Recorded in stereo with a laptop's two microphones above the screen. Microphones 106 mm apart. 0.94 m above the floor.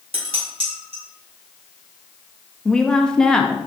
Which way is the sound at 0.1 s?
65° right (ahead or behind).